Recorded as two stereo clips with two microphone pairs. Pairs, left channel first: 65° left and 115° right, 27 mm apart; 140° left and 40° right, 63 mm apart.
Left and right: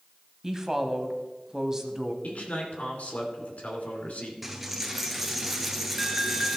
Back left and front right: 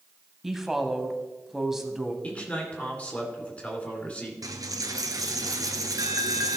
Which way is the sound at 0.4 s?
120° right.